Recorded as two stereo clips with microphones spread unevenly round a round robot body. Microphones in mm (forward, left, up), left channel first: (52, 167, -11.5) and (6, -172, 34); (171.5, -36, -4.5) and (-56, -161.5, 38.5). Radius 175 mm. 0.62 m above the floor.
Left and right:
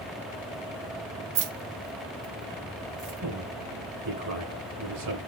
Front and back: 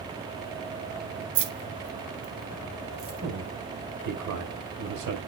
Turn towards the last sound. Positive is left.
turn(degrees=-140)